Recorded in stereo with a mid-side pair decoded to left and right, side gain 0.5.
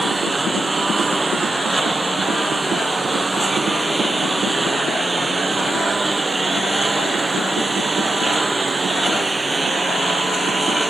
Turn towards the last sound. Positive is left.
turn(degrees=-20)